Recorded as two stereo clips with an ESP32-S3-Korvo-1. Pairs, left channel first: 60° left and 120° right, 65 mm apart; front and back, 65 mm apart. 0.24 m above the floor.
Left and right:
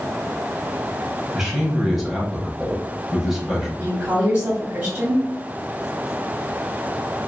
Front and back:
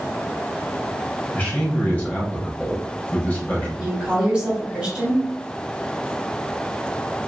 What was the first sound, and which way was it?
A man speaking, 40° right.